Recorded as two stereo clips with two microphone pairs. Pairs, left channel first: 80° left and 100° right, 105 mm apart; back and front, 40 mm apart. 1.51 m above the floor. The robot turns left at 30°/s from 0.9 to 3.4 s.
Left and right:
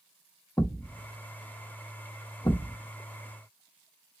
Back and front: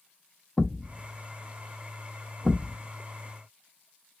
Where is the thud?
115° left, 0.9 m; by 4.2 s 40° left, 0.9 m.